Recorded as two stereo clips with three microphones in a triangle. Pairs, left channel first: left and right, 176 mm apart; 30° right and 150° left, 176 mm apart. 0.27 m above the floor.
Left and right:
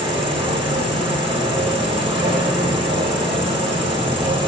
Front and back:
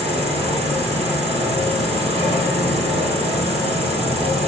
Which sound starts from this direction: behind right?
An insect, at 0.0 s.